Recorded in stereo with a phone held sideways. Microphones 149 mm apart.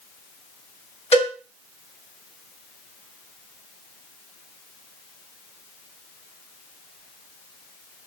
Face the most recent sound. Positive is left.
turn(degrees=45)  # may be behind; listen again after turning